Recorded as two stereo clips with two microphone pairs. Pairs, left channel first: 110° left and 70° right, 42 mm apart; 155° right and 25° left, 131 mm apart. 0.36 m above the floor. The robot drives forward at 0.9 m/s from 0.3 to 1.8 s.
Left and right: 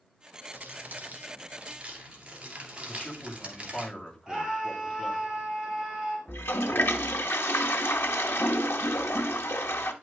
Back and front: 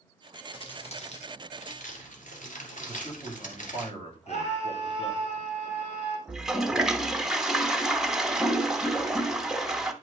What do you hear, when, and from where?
0.5 s crumpling: 105° right, 1.6 m; by 3.9 s 135° right, 2 m
2.9 s a man speaking: 170° left, 2 m
4.3 s a scream: 145° right, 2 m
6.3 s a toilet flushing: 115° left, 0.8 m